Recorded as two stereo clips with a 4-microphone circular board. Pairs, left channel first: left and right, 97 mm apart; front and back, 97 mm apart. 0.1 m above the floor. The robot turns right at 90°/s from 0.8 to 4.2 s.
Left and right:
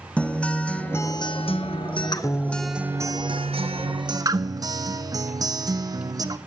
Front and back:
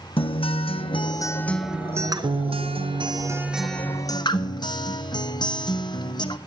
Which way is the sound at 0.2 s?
15° left.